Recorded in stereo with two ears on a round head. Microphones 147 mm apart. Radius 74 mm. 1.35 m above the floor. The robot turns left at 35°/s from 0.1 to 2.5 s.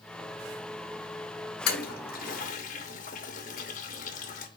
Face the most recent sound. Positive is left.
turn(degrees=50)  # may be behind; listen again after turning